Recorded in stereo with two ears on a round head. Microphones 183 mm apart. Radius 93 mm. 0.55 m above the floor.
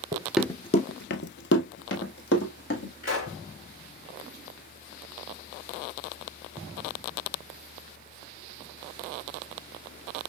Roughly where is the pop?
Left.